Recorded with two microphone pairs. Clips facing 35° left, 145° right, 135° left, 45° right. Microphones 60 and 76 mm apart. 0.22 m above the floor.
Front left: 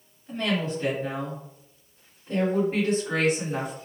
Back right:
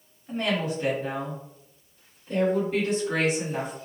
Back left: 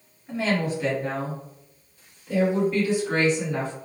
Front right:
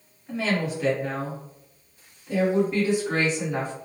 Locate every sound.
0.3 s a woman speaking: 150° right, 1.6 m; by 3.7 s 15° left, 2 m